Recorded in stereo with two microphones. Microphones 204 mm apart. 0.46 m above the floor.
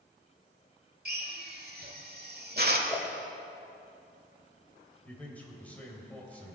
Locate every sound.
1.1 s a drill: 50° right (ahead or behind), 1.3 m
2.9 s a whoosh: 25° left (ahead or behind), 1.6 m
5.0 s a man speaking: 5° left (ahead or behind), 2.5 m